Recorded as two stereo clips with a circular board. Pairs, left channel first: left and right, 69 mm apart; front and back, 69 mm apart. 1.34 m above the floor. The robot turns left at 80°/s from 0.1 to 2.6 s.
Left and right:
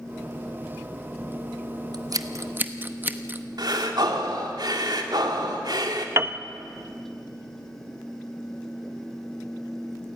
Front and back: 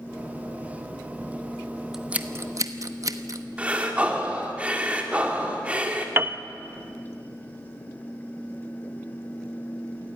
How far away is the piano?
About 0.8 m.